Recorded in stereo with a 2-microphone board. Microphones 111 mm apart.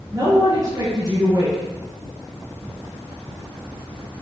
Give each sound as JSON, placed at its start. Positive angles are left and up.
{"t": 0.1, "sound": "a man speaking", "side_deg": -30, "distance_m": 3.5}